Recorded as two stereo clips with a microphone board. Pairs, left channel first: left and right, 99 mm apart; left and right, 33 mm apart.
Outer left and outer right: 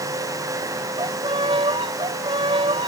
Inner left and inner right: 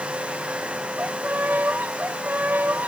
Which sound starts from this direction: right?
A violin, at 1.0 s.